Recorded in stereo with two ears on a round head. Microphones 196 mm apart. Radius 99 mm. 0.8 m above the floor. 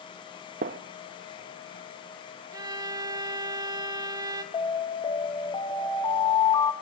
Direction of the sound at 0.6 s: 45° right (ahead or behind).